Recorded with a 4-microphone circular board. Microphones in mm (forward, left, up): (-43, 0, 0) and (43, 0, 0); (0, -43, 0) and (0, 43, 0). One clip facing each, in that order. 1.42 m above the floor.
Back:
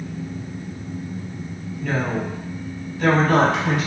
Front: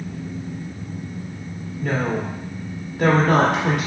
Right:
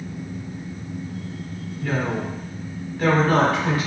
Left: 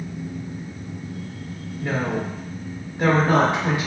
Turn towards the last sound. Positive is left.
turn(degrees=20)